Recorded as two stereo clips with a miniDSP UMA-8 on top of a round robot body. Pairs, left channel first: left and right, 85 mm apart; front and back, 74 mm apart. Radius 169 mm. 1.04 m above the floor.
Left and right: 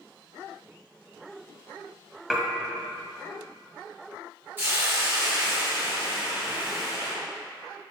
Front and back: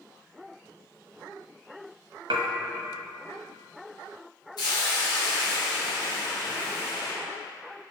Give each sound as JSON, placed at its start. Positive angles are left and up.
{"t": 2.3, "sound": "dishes clattering", "azimuth_deg": -175, "distance_m": 1.6}
{"t": 4.6, "sound": "a hiss", "azimuth_deg": -25, "distance_m": 3.0}